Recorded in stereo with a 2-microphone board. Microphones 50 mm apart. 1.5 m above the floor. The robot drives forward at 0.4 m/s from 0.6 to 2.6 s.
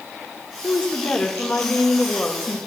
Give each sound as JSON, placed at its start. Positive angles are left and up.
{"t": 0.6, "sound": "a woman speaking", "side_deg": 25, "distance_m": 1.5}